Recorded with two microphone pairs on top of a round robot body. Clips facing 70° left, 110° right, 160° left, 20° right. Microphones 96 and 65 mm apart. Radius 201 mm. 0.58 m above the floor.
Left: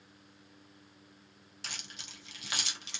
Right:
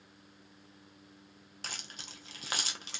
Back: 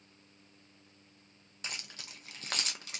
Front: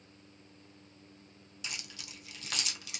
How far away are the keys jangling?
About 0.8 m.